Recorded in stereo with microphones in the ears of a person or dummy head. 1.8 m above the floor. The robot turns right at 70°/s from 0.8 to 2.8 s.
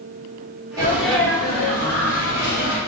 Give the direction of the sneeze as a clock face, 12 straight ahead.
1 o'clock.